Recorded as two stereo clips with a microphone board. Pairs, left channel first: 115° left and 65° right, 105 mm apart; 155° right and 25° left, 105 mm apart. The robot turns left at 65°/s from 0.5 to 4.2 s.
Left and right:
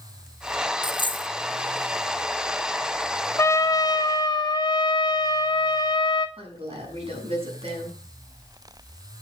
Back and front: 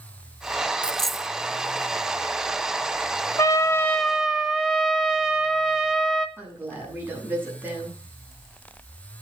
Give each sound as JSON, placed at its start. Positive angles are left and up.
{"t": 0.8, "sound": "a dropped coin", "azimuth_deg": 130, "distance_m": 0.6}
{"t": 3.4, "sound": "a trumpet", "azimuth_deg": 160, "distance_m": 1.1}
{"t": 6.4, "sound": "a woman speaking", "azimuth_deg": -50, "distance_m": 7.5}